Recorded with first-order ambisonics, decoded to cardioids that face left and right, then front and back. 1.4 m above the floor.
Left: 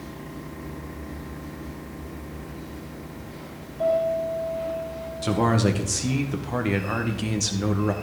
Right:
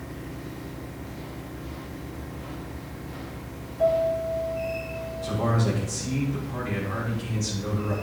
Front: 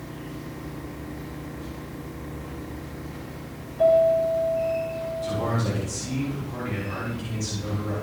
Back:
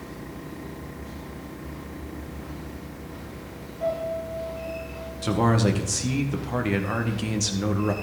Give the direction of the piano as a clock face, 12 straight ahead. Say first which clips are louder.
Even, front 10 dB; 12 o'clock.